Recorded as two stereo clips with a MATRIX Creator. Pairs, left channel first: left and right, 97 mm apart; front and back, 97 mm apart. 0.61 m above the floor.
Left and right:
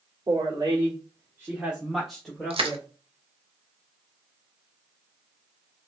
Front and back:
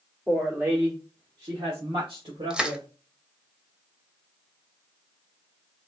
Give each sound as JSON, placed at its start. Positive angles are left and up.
{"t": 0.3, "sound": "a woman speaking", "azimuth_deg": -110, "distance_m": 1.5}
{"t": 2.5, "sound": "crushing", "azimuth_deg": -100, "distance_m": 0.7}